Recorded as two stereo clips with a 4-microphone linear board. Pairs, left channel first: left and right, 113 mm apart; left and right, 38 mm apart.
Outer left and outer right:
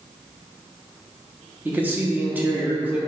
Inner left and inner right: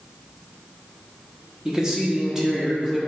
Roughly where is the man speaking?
Centre.